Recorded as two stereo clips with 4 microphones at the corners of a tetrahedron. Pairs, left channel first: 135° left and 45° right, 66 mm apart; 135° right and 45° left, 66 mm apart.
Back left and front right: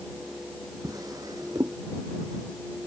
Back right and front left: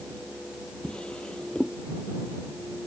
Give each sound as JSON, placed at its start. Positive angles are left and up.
{"t": 0.8, "sound": "a drawer", "azimuth_deg": -60}